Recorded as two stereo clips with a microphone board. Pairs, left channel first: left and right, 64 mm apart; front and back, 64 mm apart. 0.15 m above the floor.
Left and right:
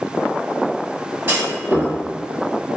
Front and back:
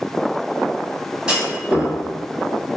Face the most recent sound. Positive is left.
turn(degrees=-110)